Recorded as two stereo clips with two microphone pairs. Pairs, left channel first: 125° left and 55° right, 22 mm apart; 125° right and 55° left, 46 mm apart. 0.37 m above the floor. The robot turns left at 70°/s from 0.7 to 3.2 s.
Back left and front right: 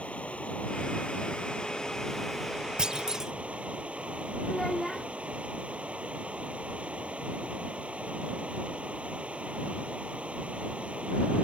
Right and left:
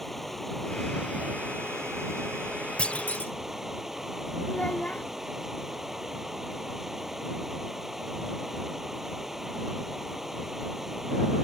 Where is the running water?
150° left; by 11.4 s 25° right.